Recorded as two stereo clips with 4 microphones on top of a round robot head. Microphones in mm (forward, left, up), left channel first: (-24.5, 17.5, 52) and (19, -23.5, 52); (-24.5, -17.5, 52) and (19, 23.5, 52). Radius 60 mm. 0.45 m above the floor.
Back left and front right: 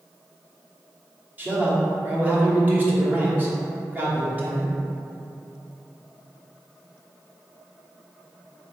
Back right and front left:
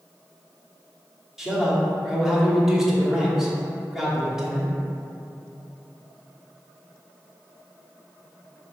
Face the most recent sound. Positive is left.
turn(degrees=-30)